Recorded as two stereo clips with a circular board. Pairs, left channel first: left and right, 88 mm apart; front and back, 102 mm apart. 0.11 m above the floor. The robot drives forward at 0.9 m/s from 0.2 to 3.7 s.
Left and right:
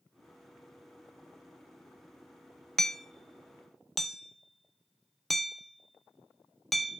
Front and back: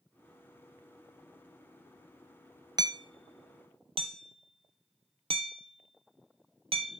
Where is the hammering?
175° left, 0.7 m.